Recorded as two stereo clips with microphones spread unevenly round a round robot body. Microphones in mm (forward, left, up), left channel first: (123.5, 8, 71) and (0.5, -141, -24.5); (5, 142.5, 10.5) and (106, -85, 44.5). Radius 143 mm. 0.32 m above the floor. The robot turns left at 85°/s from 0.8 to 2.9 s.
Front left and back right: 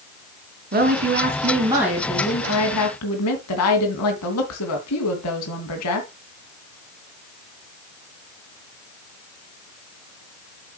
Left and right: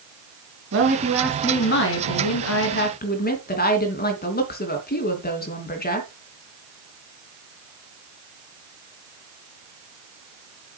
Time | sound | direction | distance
0.7 | a woman speaking | 115° right | 3 m